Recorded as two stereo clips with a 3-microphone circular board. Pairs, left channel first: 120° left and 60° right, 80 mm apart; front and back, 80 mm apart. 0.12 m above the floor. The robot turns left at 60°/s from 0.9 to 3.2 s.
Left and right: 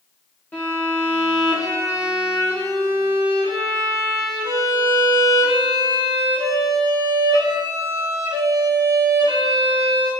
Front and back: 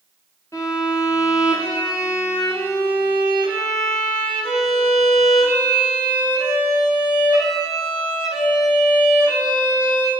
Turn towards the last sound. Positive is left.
turn(degrees=-85)